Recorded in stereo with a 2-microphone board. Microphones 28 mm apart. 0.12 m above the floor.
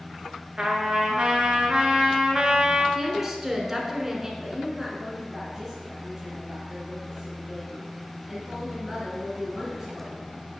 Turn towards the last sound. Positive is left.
turn(degrees=-20)  # may be behind; listen again after turning